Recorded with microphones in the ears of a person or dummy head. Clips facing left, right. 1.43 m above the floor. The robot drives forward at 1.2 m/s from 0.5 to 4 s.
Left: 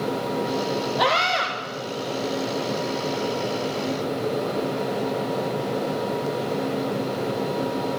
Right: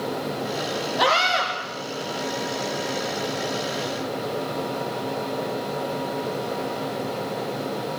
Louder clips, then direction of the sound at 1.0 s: Even; centre (ahead or behind).